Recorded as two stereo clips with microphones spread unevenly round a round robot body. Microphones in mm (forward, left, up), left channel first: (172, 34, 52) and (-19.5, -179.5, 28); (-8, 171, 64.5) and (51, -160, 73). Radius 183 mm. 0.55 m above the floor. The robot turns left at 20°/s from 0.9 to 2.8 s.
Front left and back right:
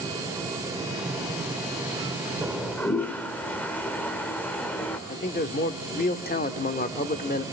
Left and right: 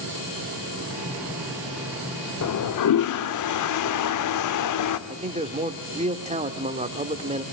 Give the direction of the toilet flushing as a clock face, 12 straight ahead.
7 o'clock.